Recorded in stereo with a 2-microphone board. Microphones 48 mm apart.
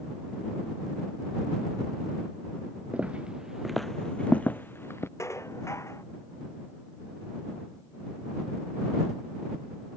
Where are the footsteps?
30° right (ahead or behind); by 5.1 s 60° left (ahead or behind).